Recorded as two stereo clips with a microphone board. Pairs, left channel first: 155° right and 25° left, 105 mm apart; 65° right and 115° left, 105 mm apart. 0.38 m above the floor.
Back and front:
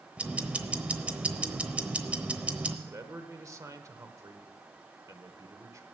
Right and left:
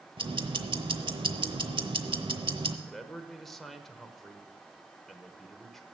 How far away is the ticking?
About 0.9 m.